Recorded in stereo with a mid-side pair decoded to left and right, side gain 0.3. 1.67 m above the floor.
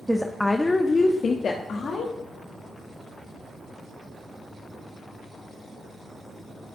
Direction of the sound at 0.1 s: 10° right.